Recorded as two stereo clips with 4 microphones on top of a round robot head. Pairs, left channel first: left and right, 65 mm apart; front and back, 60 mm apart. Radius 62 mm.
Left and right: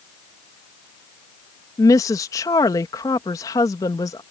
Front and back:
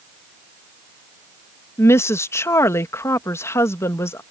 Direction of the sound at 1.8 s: 45° left.